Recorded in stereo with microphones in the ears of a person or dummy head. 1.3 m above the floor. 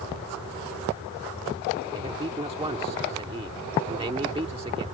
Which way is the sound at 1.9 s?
25° right (ahead or behind).